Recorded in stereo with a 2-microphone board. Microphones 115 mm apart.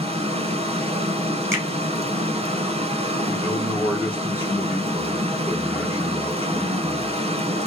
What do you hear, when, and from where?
0.0 s running water: 65° right (ahead or behind), 0.9 m
1.5 s a finger snap: 20° right (ahead or behind), 2.5 m
3.3 s a man speaking: 20° right (ahead or behind), 3.5 m